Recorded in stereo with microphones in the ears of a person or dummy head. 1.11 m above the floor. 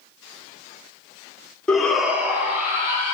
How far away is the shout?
About 0.7 m.